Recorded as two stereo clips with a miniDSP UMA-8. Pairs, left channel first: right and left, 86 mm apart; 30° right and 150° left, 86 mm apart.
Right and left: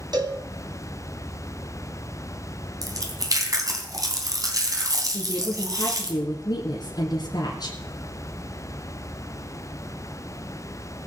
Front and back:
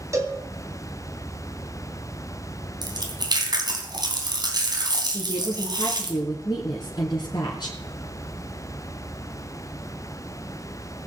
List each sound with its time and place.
0.1 s a cowbell: 105° left, 3 m
2.8 s chewing: 130° left, 3 m
5.1 s a woman speaking: 55° right, 3.5 m